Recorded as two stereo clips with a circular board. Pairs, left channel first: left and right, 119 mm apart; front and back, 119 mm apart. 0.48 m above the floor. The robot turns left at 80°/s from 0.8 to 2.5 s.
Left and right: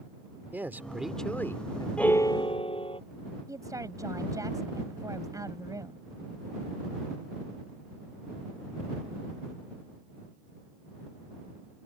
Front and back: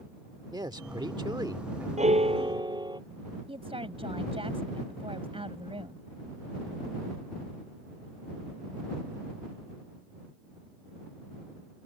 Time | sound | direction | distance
0.5 | a man speaking | 155° right | ?
2.0 | a piano | 170° left | ?
3.5 | a woman speaking | 150° right | ?